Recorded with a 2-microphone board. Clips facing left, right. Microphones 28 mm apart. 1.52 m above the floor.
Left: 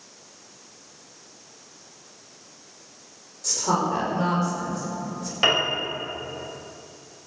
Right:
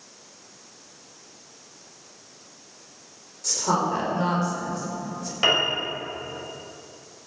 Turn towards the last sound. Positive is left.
turn(degrees=10)  # may be behind; listen again after turning